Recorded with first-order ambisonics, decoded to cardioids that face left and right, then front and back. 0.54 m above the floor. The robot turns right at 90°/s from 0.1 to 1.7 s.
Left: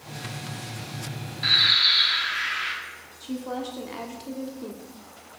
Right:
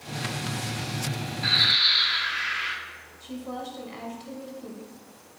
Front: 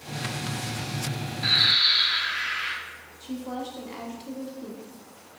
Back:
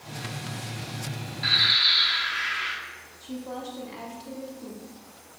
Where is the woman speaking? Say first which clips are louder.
Left 4 dB, front 2 dB; 75° left, 1.0 m.